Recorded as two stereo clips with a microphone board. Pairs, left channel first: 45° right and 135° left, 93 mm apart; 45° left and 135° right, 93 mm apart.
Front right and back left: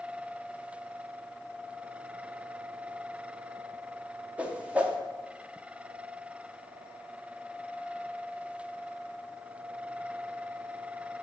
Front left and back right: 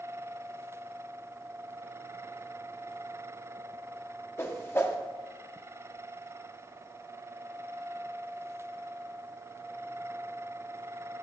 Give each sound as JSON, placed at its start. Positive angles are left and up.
{"t": 4.4, "sound": "a whoosh", "azimuth_deg": 75, "distance_m": 0.6}